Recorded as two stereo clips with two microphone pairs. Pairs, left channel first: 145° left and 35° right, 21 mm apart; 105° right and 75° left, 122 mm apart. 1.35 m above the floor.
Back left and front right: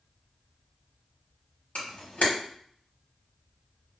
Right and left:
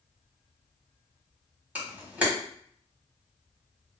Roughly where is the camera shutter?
Behind left.